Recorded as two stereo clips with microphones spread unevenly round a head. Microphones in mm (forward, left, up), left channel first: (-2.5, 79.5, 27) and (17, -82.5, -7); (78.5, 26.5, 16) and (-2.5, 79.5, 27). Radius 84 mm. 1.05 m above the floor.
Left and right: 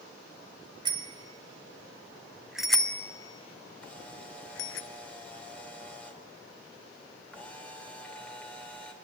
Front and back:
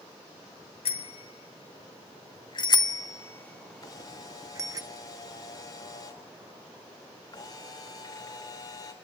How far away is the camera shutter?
About 3 m.